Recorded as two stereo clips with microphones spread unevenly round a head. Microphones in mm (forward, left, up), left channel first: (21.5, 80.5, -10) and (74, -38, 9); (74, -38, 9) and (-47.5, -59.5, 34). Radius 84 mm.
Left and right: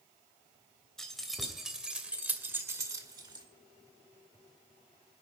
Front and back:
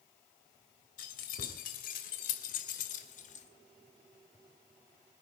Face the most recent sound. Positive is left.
turn(degrees=-10)